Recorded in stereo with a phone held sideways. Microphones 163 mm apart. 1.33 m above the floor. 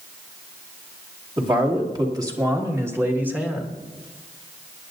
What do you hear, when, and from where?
1.4 s a man speaking: 30° right (ahead or behind), 2.5 m; by 3.7 s 5° right (ahead or behind), 1.7 m